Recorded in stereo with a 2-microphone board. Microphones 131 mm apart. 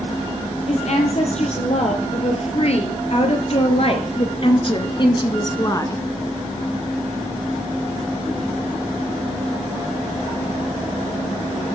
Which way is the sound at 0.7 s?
55° left (ahead or behind).